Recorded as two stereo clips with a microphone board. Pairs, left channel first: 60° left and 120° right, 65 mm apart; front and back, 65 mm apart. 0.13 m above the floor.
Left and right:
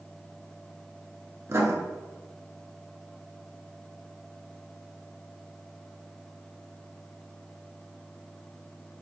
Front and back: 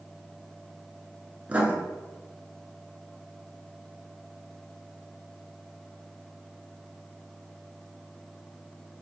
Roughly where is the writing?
Behind right.